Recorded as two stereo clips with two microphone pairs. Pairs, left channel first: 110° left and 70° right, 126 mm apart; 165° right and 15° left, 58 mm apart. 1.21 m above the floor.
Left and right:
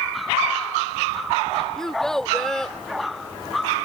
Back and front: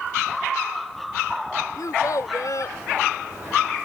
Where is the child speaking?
165° right.